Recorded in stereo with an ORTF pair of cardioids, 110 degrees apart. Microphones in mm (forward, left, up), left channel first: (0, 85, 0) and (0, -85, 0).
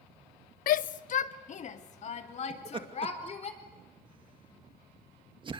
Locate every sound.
0.7 s a shout: 60° left, 0.8 m; by 3.5 s 40° left, 4.5 m
2.5 s laughter: 30° right, 2 m